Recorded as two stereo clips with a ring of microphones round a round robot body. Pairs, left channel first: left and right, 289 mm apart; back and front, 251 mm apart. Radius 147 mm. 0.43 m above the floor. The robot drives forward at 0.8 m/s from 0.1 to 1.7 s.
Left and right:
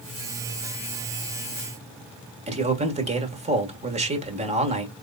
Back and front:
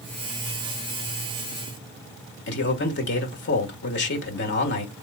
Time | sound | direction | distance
2.5 | a man speaking | 150° right | 1.5 m